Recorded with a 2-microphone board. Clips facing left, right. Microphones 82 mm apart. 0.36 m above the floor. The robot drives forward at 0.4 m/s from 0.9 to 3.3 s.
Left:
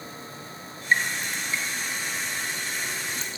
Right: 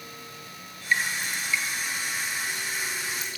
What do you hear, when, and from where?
0.9 s dripping: 35° left (ahead or behind), 4.5 m; by 3.4 s 25° left (ahead or behind), 5.5 m